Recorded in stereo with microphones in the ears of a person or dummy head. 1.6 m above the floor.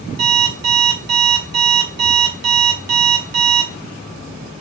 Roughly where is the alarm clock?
Right.